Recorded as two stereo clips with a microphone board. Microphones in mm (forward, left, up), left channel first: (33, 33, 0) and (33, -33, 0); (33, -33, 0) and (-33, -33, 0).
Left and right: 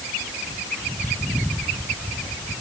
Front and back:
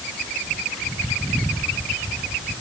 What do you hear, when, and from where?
Only background noise.